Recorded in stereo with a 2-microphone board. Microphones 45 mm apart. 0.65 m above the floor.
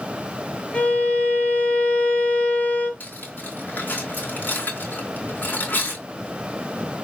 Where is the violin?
25° left (ahead or behind), 3 m.